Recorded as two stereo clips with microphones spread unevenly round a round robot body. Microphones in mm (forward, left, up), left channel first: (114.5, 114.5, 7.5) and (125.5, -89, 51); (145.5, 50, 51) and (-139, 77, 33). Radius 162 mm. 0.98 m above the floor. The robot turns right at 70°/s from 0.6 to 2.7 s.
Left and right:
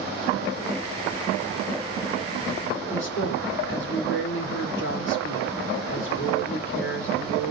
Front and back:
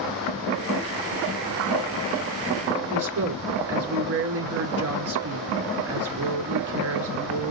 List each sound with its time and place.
2.9 s a woman speaking: 135° left, 2.5 m